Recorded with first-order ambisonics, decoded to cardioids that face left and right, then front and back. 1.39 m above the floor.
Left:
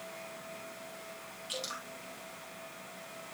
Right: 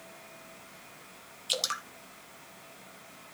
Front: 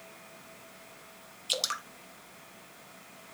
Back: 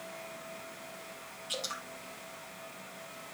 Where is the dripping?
40° right, 1.3 m.